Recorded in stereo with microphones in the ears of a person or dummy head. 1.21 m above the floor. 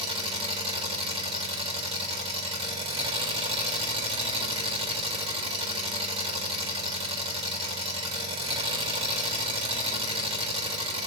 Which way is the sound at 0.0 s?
30° right (ahead or behind).